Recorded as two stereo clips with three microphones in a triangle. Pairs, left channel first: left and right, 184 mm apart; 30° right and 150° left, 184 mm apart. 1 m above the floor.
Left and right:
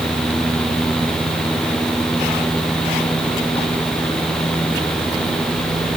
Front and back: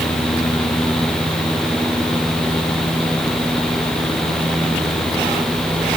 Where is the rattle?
I don't hear a rattle.